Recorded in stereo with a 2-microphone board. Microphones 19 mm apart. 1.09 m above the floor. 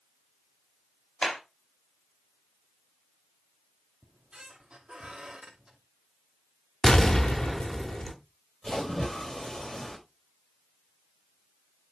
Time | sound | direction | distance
1.2 | a clap | 35° left (ahead or behind) | 4.5 m
4.0 | a squeak | 65° right (ahead or behind) | 2.5 m
6.8 | an explosion | 30° left (ahead or behind) | 1.3 m
8.6 | a splash | 40° left (ahead or behind) | 4 m